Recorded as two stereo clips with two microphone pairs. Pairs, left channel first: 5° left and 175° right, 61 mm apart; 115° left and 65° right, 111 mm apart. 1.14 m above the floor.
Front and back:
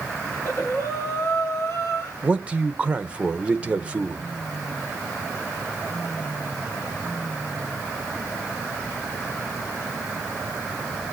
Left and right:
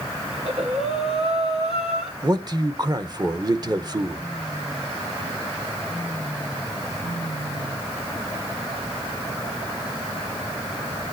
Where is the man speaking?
110° right, 1.2 m.